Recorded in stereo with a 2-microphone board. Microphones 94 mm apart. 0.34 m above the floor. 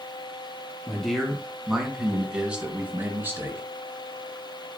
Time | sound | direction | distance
0.9 | a man speaking | 5° left (ahead or behind) | 3.5 m